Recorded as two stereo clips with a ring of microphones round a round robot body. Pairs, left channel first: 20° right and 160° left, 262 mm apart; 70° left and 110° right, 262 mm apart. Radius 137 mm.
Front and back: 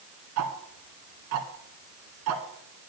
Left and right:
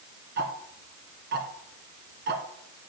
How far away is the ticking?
About 1.0 m.